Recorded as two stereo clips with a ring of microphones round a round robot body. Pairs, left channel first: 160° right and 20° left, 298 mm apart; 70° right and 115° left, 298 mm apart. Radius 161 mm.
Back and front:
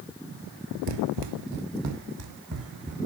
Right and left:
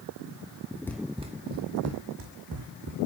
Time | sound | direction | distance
0.9 | running footsteps | 15° left | 0.8 m